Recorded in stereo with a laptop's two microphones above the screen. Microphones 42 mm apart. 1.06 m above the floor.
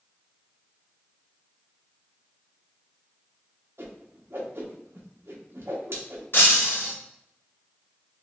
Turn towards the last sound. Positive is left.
turn(degrees=60)  # may be behind; listen again after turning